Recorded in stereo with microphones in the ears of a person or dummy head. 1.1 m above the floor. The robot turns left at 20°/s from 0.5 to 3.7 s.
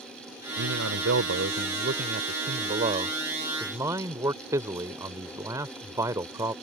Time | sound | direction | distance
0.6 | a man speaking | 90° right | ?